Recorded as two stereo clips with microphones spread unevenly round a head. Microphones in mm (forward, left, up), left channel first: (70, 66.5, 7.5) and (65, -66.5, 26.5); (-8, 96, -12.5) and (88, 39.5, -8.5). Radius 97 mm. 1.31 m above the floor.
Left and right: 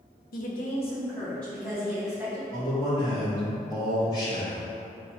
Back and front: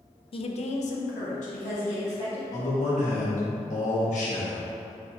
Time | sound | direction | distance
0.3 | a woman speaking | 110° left | 0.5 m
2.5 | a man speaking | 155° left | 1.1 m